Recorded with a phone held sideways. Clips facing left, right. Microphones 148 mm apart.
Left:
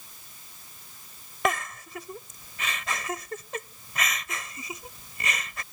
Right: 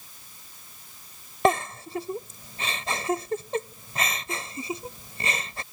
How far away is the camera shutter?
No camera shutter in this recording.